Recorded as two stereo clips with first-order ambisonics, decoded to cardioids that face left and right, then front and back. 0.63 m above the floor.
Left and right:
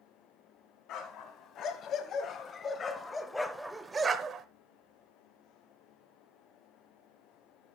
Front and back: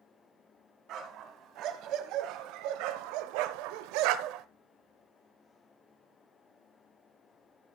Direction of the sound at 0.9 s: 135° left.